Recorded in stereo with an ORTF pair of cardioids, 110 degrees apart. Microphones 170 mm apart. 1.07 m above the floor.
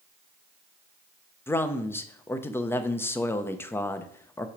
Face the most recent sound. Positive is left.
turn(degrees=15)